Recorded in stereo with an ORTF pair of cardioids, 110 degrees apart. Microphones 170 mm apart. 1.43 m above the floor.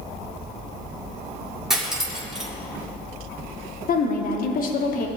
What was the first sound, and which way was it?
Cutlery clinking, 5° right.